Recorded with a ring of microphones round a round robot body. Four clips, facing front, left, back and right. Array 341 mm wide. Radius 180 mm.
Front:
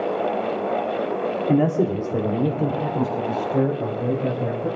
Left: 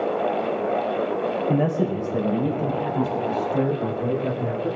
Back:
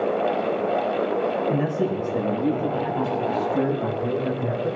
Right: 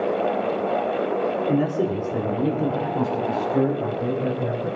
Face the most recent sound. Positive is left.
turn(degrees=-35)